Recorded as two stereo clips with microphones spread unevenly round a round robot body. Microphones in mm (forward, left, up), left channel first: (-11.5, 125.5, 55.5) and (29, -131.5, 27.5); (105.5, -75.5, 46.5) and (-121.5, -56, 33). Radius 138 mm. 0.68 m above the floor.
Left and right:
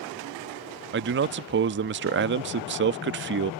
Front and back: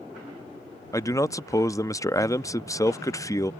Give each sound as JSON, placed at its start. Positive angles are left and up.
{"t": 0.9, "sound": "a man speaking", "azimuth_deg": -80}